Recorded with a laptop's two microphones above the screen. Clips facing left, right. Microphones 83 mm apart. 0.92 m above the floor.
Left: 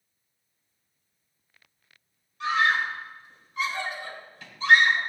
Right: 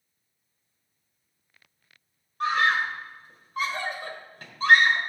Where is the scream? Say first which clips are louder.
Even; 50° right (ahead or behind), 3.5 m.